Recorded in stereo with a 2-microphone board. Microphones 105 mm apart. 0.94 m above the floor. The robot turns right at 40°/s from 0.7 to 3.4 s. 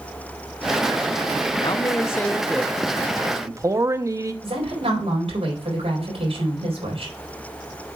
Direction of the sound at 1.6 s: 135° left.